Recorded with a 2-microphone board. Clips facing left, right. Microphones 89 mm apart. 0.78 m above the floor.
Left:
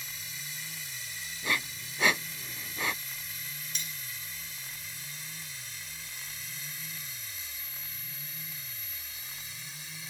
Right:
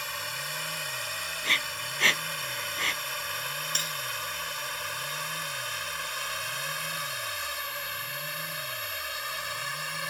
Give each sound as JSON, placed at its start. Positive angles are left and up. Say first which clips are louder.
{"t": 0.0, "sound": "a drone", "louder": "right 10 dB", "side_deg": -65}
{"t": 1.4, "sound": "breathing", "louder": "even", "side_deg": 15}
{"t": 3.8, "sound": "cutlery clinking", "louder": "right 9 dB", "side_deg": -65}